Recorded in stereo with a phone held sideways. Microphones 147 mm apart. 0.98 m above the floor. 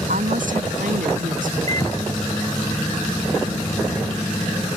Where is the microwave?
25° left (ahead or behind).